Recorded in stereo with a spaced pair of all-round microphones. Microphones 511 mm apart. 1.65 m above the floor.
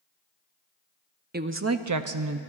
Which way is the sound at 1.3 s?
20° right (ahead or behind).